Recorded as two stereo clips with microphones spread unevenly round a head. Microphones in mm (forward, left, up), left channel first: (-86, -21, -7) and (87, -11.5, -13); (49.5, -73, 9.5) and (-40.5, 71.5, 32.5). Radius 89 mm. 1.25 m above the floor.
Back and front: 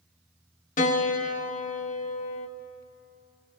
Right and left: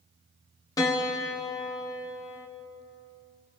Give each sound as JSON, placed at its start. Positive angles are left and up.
{"t": 0.8, "sound": "a piano", "azimuth_deg": -130, "distance_m": 1.1}